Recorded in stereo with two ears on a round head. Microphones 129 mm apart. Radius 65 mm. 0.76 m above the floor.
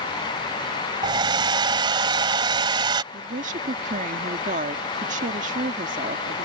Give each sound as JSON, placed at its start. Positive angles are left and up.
{"t": 1.0, "sound": "a hair dryer", "side_deg": -35}
{"t": 3.1, "sound": "a woman speaking", "side_deg": -60}